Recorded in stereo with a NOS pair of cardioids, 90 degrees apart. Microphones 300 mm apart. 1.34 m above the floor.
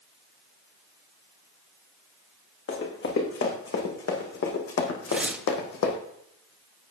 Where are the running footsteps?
45° left, 6 m; by 6.0 s 75° left, 3.5 m.